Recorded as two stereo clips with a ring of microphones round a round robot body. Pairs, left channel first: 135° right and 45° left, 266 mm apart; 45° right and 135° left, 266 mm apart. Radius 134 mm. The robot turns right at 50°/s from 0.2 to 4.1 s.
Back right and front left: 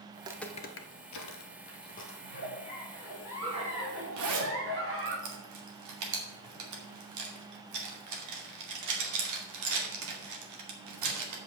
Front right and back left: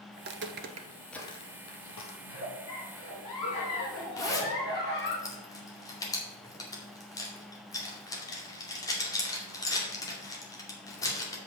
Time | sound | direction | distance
0.2 | footsteps | 95° left | 0.9 m
2.2 | a giggle | 90° right | 3.5 m
4.2 | a zipper | 30° left | 2.5 m